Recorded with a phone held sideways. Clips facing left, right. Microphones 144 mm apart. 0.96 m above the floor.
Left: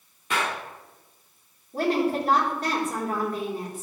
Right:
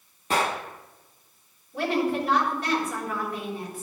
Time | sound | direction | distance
0.3 | a gunshot | 35° right (ahead or behind) | 0.9 m
1.7 | a woman speaking | 40° left (ahead or behind) | 4 m